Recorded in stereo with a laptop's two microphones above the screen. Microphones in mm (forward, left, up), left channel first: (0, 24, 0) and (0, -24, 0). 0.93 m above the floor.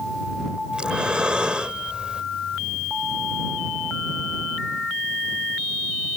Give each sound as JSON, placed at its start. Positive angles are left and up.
{"t": 0.7, "sound": "breathing", "side_deg": -20}